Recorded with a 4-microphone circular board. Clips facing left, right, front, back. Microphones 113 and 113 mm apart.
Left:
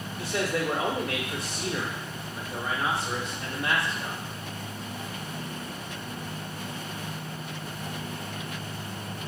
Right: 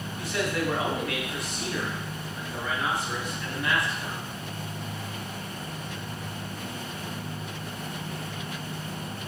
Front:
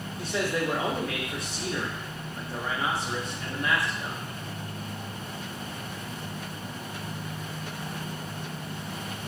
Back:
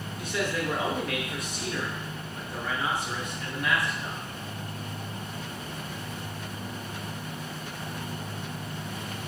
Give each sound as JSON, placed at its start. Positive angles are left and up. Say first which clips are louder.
{"t": 0.2, "sound": "a man speaking", "louder": "even, front 2 dB", "azimuth_deg": 45, "distance_m": 0.9}